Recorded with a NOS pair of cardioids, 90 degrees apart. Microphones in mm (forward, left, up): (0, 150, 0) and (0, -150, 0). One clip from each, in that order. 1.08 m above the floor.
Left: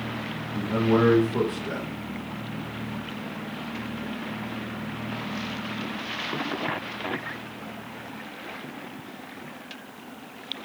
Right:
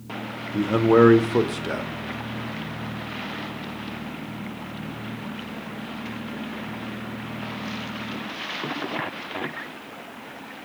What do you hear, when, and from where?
0.5 s a man speaking: 35° right, 0.6 m